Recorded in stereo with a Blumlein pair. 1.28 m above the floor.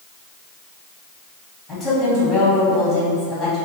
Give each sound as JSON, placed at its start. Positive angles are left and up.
{"t": 1.7, "sound": "a woman speaking", "azimuth_deg": 15, "distance_m": 1.6}